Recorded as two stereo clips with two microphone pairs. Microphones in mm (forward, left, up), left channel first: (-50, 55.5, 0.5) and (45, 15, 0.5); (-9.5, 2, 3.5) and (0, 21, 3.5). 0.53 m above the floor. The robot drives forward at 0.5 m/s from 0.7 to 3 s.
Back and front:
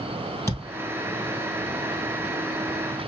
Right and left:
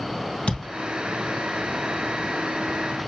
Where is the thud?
140° right, 2.5 m.